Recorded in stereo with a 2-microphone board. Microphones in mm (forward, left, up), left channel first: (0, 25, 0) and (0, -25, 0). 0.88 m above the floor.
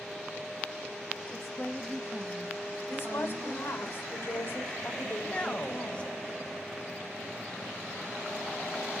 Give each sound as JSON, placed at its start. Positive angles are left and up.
{"t": 1.3, "sound": "a woman speaking", "side_deg": 55, "distance_m": 0.8}
{"t": 2.9, "sound": "a woman speaking", "side_deg": 40, "distance_m": 2.5}
{"t": 5.2, "sound": "a man speaking", "side_deg": 20, "distance_m": 1.3}